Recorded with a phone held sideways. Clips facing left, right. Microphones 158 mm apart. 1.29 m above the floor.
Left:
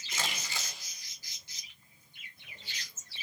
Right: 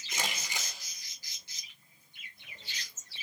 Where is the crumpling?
15° right (ahead or behind), 4.5 m.